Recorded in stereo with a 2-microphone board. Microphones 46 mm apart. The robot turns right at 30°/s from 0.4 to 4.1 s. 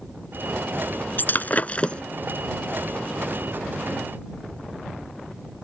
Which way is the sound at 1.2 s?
45° left (ahead or behind).